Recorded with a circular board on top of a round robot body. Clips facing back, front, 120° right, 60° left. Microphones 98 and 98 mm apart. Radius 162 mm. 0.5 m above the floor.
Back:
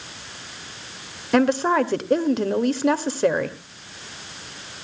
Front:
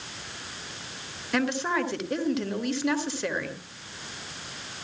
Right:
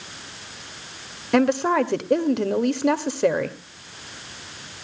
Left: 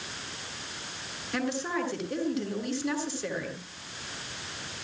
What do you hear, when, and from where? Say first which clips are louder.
1.3 s a woman speaking: back 8 dB, right 12 dB; 135° right, 2 m